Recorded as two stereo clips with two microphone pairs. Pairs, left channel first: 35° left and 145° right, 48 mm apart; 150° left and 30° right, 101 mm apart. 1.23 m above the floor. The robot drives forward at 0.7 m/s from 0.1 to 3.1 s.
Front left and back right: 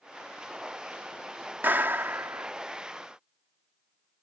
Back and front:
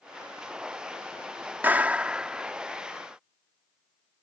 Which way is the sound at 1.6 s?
100° right.